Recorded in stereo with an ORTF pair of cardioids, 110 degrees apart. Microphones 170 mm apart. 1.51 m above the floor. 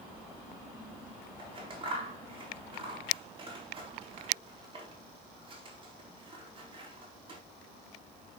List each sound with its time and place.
1.4 s scissors: 30° right, 3.5 m